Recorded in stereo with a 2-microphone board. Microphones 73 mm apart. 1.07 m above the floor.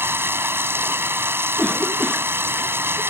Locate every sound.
0.0 s running water: 30° right (ahead or behind)
1.6 s a cough: 5° left (ahead or behind)